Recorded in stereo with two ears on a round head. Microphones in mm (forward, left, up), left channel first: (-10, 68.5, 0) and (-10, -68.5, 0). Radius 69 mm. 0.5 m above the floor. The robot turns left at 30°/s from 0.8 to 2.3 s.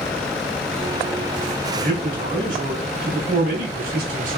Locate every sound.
1.8 s a man speaking: 55° right (ahead or behind), 1.7 m; by 4.4 s 65° right (ahead or behind), 1.7 m